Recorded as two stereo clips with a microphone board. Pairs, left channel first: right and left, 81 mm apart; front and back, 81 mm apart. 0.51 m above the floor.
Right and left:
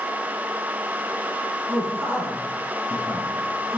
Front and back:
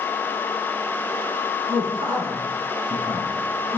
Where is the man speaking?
155° left, 6.5 m.